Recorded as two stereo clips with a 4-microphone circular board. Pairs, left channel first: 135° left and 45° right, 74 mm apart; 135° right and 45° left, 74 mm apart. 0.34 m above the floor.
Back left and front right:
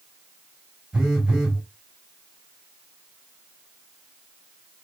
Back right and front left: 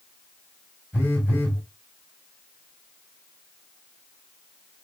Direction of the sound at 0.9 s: 105° right.